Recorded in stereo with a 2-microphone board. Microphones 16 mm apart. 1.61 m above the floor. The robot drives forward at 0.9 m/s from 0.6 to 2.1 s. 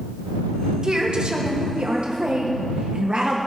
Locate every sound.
0.8 s a woman speaking: 40° right (ahead or behind), 1.4 m; by 3.4 s 60° right (ahead or behind), 1.0 m